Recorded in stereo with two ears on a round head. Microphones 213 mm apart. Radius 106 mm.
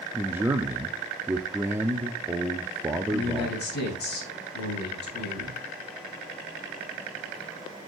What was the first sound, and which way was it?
A man speaking, 10° right (ahead or behind).